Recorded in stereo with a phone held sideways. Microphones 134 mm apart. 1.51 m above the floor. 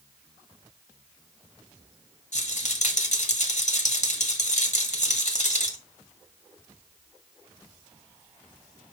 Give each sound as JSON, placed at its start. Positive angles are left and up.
{"t": 2.3, "sound": "a rattle", "side_deg": 60, "distance_m": 1.7}